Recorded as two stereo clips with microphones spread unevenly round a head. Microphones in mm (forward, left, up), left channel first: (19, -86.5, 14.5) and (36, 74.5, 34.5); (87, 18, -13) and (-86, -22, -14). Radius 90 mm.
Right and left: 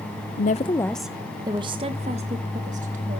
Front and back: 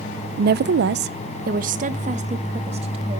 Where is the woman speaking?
135° right, 0.6 m; by 3.2 s 130° left, 2.5 m.